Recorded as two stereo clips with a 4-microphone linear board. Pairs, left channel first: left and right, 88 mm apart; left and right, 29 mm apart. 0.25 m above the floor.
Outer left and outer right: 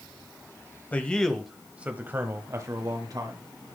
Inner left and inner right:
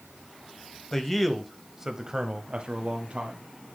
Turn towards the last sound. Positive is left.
turn(degrees=-50)  # may be behind; listen again after turning